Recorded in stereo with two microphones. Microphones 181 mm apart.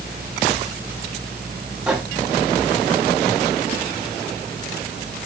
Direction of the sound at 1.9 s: 5° right (ahead or behind).